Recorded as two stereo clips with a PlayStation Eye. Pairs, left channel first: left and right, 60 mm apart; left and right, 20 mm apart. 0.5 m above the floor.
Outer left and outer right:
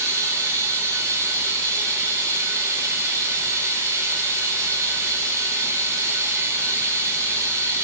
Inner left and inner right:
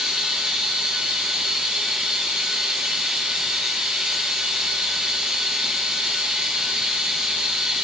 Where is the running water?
60° right (ahead or behind), 5.5 m.